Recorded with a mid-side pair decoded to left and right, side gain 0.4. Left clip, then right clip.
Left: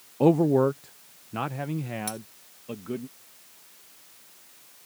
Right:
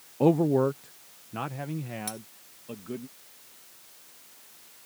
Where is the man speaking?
15° left; by 3.1 s 35° left.